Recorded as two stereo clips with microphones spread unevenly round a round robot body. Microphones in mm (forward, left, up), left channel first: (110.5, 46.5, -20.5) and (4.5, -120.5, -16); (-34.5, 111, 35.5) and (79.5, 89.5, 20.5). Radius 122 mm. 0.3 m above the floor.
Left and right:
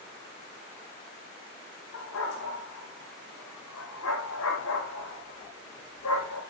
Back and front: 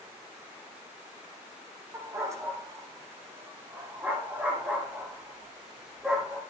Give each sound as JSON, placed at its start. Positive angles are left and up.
{"t": 1.9, "sound": "a dog barking", "azimuth_deg": 55, "distance_m": 6.5}